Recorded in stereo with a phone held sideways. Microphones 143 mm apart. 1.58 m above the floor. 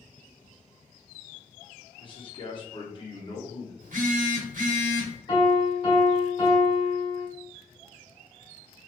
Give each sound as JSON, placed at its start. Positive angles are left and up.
{"t": 2.0, "sound": "a man speaking", "side_deg": 35, "distance_m": 1.3}
{"t": 3.8, "sound": "a phone buzzing", "side_deg": -65, "distance_m": 1.1}
{"t": 5.3, "sound": "a piano", "side_deg": 35, "distance_m": 2.0}